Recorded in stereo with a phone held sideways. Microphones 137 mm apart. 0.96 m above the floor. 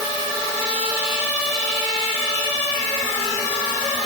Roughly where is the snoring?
No snoring in this recording.